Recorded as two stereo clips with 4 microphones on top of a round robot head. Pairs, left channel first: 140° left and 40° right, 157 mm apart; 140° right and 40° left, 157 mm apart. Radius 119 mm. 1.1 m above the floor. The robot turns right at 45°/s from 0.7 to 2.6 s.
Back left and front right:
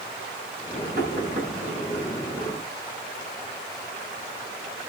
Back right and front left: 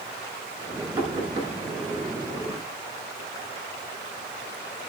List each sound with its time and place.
1.0 s knocking: 25° right, 9.5 m; by 1.5 s straight ahead, 9.5 m